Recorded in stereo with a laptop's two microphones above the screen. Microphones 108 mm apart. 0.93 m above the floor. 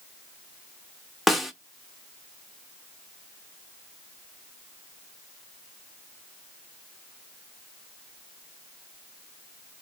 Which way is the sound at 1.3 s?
Centre (ahead or behind).